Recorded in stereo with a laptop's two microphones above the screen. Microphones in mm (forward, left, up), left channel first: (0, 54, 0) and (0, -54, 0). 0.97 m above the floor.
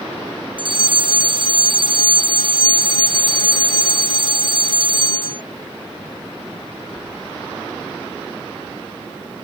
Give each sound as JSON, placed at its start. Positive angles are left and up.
{"t": 0.6, "sound": "a fire alarm", "side_deg": -50}